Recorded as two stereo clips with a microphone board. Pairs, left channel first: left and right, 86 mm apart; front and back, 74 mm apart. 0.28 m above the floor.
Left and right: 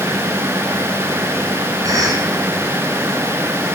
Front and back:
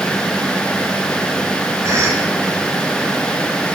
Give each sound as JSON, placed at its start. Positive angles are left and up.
{"t": 1.8, "sound": "a cough", "azimuth_deg": -135, "distance_m": 2.5}